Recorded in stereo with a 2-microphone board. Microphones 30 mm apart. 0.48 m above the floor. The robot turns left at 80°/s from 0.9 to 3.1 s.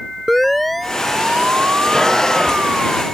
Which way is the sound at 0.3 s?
5° left (ahead or behind).